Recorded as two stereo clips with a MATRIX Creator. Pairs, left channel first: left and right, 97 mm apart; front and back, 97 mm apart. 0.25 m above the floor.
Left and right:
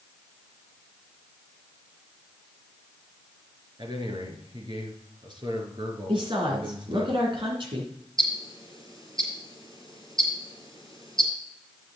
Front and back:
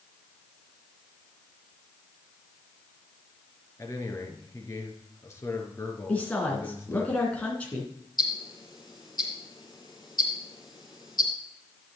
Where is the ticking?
45° right, 6 m.